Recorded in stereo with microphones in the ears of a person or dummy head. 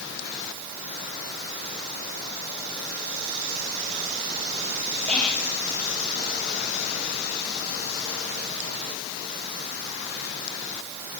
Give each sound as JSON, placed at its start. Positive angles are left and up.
{"t": 5.1, "sound": "whispering", "side_deg": 10, "distance_m": 1.3}